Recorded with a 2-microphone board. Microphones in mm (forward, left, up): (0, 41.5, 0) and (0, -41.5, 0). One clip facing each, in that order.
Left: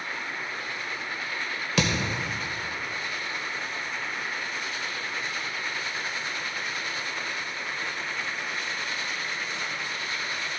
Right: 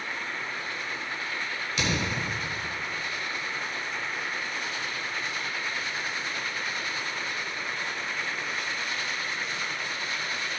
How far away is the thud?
About 2.0 m.